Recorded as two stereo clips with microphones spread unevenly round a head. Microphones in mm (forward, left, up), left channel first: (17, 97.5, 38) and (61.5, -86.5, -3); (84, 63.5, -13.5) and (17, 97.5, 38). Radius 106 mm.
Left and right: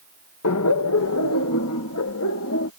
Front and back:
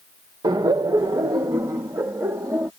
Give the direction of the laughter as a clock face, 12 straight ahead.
8 o'clock.